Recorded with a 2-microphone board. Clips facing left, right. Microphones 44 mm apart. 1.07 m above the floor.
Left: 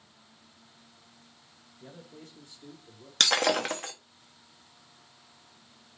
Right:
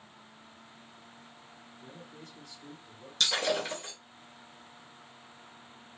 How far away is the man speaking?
About 1.1 m.